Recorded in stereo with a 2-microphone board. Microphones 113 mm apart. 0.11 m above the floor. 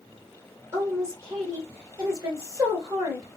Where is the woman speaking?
25° right (ahead or behind), 1.5 m.